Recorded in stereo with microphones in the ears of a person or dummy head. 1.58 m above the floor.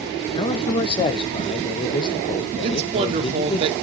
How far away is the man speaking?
About 0.8 m.